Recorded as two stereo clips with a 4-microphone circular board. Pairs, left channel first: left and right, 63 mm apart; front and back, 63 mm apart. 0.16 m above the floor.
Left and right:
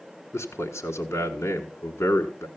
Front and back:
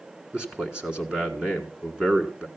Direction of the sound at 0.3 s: 110° left.